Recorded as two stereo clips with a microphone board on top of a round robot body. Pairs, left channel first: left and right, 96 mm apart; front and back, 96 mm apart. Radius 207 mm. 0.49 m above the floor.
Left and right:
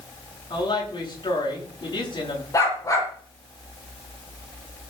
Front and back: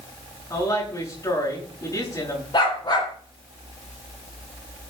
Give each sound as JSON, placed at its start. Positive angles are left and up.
{"t": 0.5, "sound": "a woman speaking", "azimuth_deg": 55, "distance_m": 9.5}
{"t": 2.5, "sound": "a dog barking", "azimuth_deg": 35, "distance_m": 7.0}